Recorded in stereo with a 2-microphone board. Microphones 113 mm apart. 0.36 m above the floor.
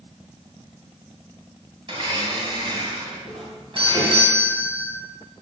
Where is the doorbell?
60° right (ahead or behind), 4 m.